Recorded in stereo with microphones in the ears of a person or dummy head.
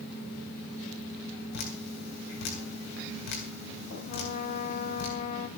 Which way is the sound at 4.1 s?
50° left (ahead or behind).